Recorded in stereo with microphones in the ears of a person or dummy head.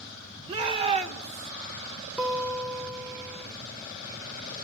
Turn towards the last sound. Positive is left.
turn(degrees=-10)  # may be behind; listen again after turning